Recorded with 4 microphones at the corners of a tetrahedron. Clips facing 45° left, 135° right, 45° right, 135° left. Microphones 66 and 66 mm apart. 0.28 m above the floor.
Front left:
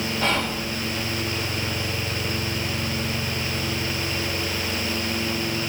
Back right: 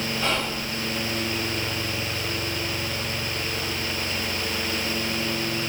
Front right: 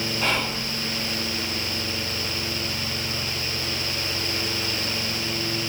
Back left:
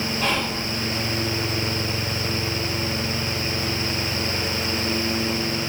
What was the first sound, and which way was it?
Whispering, 35° left.